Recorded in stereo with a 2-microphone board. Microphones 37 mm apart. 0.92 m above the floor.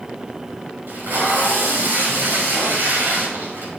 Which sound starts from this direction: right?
Tape being pulled, at 0.9 s.